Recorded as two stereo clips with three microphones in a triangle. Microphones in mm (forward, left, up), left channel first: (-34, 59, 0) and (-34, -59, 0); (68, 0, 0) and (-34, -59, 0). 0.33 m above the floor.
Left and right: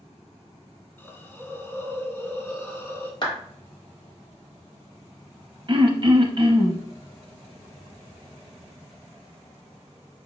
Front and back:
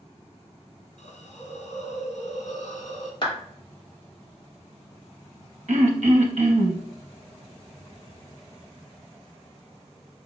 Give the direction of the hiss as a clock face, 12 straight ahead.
11 o'clock.